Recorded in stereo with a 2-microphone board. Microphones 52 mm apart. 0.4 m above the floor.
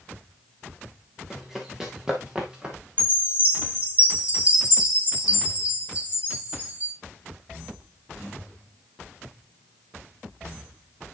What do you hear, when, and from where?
1.3 s running footsteps: 10° right (ahead or behind), 2 m; by 2.8 s 15° right (ahead or behind), 3 m
3.0 s a chime: 30° right (ahead or behind), 2.5 m